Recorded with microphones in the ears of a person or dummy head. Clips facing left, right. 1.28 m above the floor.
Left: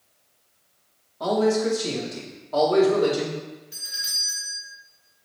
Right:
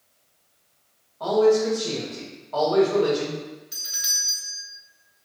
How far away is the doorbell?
About 0.9 m.